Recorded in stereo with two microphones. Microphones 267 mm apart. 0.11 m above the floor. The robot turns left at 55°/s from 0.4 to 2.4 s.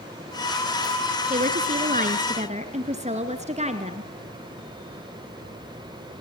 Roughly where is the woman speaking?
Ahead right.